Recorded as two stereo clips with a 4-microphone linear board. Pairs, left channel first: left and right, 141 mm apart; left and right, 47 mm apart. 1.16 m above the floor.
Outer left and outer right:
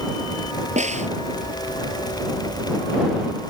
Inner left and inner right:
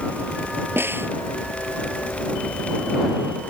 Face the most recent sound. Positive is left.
turn(degrees=-55)  # may be behind; listen again after turning